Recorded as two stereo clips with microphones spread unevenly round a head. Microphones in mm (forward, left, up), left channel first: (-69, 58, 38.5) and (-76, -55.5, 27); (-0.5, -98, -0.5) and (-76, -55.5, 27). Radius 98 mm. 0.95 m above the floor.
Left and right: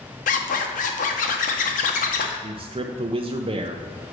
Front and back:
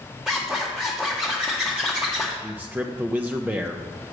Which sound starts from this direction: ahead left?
A zipper, at 0.3 s.